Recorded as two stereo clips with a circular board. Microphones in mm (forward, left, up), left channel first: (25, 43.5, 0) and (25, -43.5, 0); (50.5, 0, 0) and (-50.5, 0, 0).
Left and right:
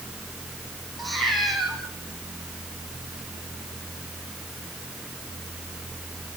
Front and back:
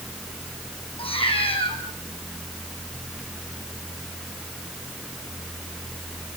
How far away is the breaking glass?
No breaking glass in this recording.